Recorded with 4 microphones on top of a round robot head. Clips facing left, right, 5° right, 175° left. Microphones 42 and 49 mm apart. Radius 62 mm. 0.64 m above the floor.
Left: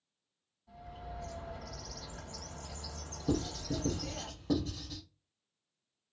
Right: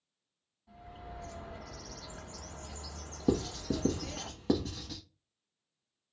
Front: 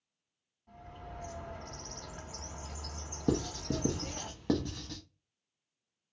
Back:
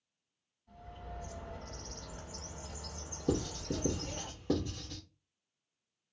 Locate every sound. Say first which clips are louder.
0.7 s a bird: left 1 dB, front 1 dB; 20° right, 1.9 m
3.3 s writing: right 3 dB, front 2 dB; 50° right, 0.7 m